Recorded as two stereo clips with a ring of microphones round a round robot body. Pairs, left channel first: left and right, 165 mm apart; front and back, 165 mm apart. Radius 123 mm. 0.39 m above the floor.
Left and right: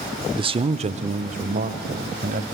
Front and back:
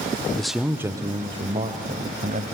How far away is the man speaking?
About 0.8 m.